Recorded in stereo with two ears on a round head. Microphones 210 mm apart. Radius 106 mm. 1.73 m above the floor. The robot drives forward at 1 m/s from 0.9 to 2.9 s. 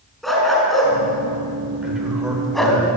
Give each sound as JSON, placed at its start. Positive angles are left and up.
{"t": 0.2, "sound": "a dog barking", "side_deg": 0, "distance_m": 5.5}
{"t": 1.8, "sound": "a man speaking", "side_deg": -5, "distance_m": 7.5}